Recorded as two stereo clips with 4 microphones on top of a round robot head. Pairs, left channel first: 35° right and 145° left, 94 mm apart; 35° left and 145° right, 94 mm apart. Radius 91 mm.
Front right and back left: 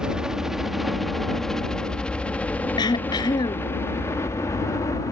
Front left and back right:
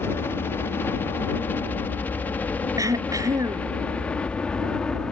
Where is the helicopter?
70° left; by 5.1 s 40° right.